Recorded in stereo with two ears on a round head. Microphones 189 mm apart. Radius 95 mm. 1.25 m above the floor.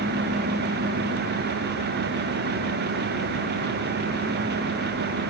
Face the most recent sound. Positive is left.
No sound to turn to.